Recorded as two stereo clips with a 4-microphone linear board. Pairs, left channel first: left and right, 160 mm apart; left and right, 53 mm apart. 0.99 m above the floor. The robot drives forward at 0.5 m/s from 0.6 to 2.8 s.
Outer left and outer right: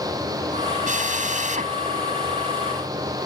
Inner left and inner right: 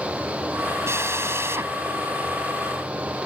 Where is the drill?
55° right (ahead or behind); by 1.7 s 50° right (ahead or behind).